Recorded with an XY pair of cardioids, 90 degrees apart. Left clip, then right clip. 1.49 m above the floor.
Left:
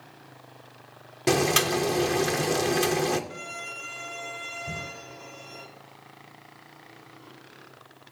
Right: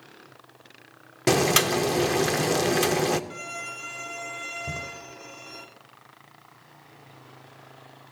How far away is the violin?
About 3 m.